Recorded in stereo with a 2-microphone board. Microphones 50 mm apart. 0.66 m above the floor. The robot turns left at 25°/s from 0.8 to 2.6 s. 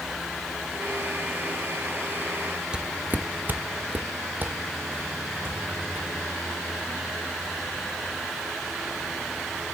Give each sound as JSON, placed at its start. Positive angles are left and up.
{"t": 2.7, "sound": "footsteps", "side_deg": -20, "distance_m": 0.6}